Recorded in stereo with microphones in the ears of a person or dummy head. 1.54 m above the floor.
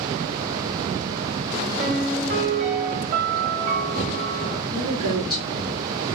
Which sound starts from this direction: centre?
A woman speaking, at 4.7 s.